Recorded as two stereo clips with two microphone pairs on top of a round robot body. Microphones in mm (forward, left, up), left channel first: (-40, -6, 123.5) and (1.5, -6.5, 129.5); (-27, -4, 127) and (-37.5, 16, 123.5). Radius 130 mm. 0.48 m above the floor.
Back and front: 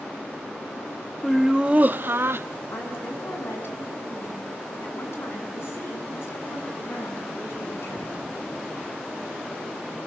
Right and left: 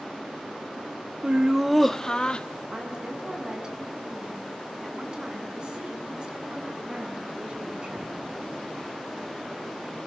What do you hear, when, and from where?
1.2 s laughter: 100° left, 0.9 m; by 2.5 s 15° right, 1.2 m
2.7 s a woman speaking: 170° left, 7 m